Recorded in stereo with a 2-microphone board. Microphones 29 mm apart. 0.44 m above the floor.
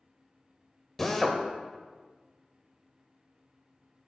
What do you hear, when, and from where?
1.0 s a drill: 10° left (ahead or behind), 0.6 m